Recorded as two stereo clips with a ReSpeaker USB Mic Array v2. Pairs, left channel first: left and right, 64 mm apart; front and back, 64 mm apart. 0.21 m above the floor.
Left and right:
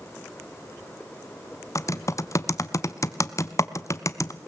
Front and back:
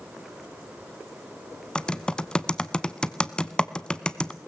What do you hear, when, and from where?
1.8 s typing on a keyboard: 75° left, 0.7 m